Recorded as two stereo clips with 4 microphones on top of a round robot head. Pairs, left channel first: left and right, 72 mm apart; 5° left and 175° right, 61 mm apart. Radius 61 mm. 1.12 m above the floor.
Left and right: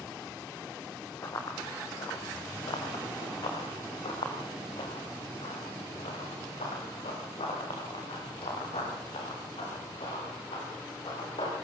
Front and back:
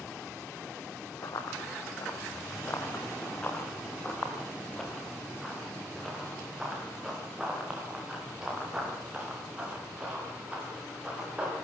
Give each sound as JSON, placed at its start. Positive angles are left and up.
{"t": 1.2, "sound": "running footsteps", "azimuth_deg": 40, "distance_m": 4.0}